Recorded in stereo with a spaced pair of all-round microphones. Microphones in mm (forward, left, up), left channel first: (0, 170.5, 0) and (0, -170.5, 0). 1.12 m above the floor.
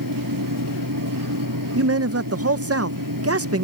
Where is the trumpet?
No trumpet in this recording.